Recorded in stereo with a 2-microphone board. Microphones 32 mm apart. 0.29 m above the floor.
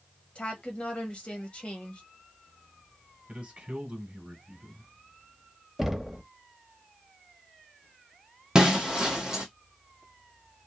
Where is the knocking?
5° right (ahead or behind), 0.8 m.